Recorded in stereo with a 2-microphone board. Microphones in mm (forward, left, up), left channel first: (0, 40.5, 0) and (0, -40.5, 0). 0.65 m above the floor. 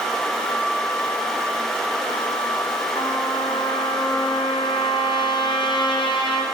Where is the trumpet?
85° left, 2.5 m.